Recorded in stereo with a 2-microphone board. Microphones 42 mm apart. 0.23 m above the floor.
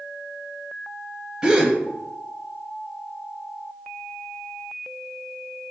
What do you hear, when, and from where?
1.4 s a gasp: 15° right (ahead or behind), 0.6 m